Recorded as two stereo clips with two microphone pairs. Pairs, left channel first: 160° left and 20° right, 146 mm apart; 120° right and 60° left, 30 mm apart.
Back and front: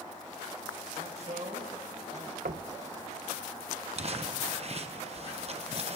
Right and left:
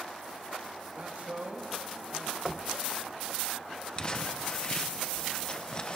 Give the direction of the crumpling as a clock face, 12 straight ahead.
2 o'clock.